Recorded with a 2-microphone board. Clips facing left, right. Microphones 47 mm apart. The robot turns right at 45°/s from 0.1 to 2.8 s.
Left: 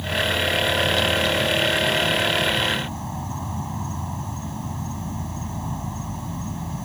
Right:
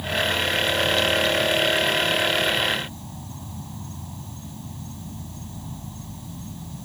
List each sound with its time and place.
0.0 s an insect: 5° right; by 6.9 s 115° left